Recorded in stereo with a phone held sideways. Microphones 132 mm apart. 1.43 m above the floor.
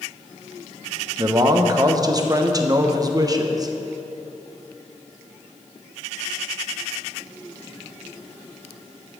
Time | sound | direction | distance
1.2 | a man speaking | 30° right (ahead or behind) | 0.9 m